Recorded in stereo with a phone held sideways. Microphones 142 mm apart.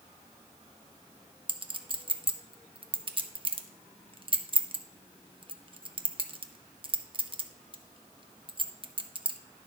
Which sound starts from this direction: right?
A clink, at 1.5 s.